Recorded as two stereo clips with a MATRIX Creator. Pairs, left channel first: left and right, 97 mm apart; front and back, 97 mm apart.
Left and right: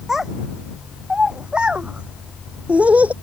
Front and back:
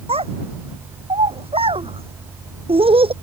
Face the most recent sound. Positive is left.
turn(degrees=-165)